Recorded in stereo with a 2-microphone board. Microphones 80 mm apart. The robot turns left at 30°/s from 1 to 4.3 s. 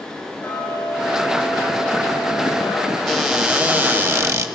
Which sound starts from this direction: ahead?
A cupboard door, at 3.1 s.